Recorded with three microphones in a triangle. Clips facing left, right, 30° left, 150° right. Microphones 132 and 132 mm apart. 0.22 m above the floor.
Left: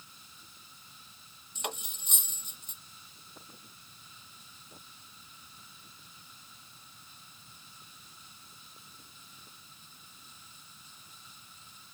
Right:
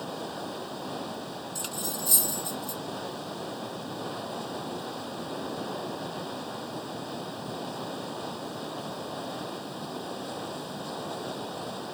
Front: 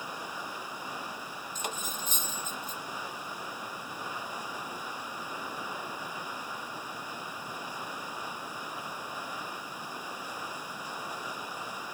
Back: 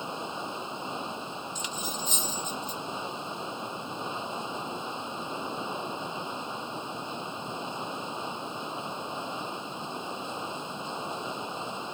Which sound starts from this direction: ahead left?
Cutlery clinking, at 1.6 s.